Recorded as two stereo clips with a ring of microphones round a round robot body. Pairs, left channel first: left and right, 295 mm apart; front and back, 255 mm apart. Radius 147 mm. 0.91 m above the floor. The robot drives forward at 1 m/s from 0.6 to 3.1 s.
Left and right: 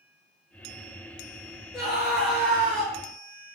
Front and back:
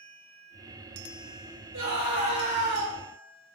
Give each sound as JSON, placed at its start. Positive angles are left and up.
{"t": 1.7, "sound": "a scream", "azimuth_deg": 180, "distance_m": 3.5}